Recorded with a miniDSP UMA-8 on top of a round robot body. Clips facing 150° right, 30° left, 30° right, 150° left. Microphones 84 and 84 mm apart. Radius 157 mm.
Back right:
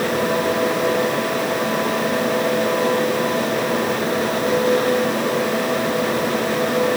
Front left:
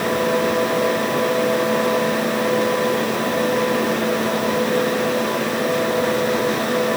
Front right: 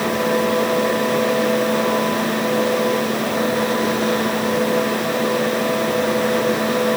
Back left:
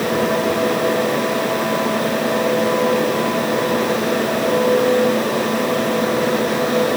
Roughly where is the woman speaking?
I don't hear a woman speaking.